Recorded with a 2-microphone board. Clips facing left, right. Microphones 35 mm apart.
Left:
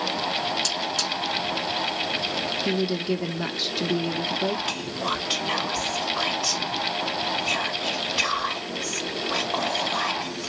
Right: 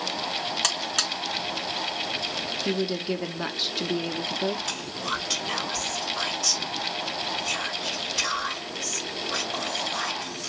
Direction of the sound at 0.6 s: 85° right.